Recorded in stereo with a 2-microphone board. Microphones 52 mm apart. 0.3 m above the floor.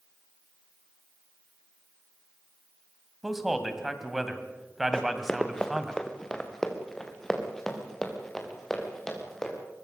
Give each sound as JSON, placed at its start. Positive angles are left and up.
{"t": 3.2, "sound": "a man speaking", "side_deg": -5, "distance_m": 2.5}
{"t": 4.9, "sound": "running footsteps", "side_deg": 15, "distance_m": 1.4}